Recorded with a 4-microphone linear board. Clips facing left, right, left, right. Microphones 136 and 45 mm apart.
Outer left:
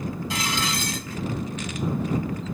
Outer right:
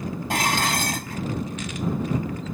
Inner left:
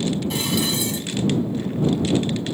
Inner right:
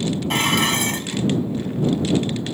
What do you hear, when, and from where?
0.3 s dishes clattering: 60° right (ahead or behind)